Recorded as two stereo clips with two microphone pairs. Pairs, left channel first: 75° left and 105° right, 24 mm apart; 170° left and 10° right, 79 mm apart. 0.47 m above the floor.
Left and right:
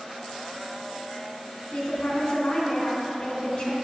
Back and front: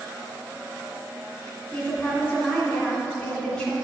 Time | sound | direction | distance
1.7 | a woman speaking | 105° left | 2 m